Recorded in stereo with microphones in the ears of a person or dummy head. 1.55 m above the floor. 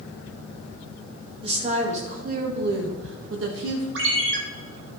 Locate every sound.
1.4 s a woman speaking: 30° right (ahead or behind), 1.9 m; by 3.9 s 80° right, 1.6 m
4.0 s a ringtone: 70° right (ahead or behind), 2.0 m